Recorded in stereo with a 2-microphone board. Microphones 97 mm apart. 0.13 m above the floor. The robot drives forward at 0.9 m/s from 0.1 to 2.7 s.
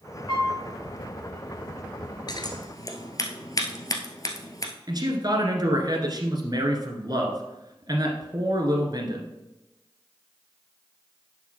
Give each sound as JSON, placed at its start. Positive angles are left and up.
{"t": 0.3, "sound": "a piano", "side_deg": 35, "distance_m": 3.5}
{"t": 2.3, "sound": "scissors", "side_deg": 50, "distance_m": 0.9}
{"t": 4.9, "sound": "a man speaking", "side_deg": -45, "distance_m": 1.6}